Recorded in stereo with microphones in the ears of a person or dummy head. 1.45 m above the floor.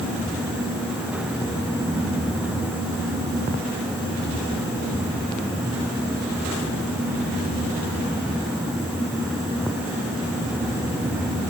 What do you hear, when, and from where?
Only background noise.